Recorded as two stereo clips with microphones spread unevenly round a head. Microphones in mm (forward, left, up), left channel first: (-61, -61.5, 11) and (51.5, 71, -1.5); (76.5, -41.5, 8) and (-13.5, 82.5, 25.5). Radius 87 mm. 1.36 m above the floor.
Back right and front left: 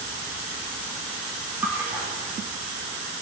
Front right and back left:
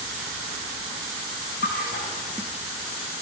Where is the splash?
30° right, 5 m.